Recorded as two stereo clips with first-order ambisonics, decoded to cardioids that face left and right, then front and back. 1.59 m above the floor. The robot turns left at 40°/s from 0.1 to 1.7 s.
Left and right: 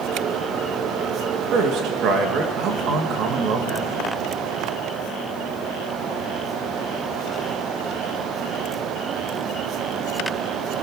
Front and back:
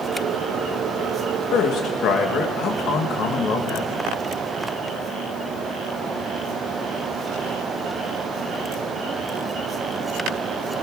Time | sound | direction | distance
1.5 | a man speaking | 40° right | 2.5 m